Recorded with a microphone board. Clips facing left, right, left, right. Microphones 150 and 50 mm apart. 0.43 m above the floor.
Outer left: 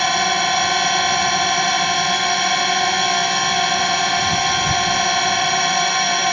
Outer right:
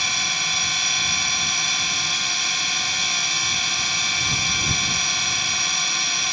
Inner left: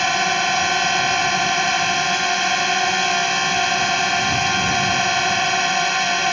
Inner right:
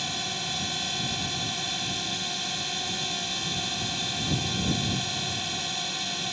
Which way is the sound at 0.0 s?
55° left (ahead or behind).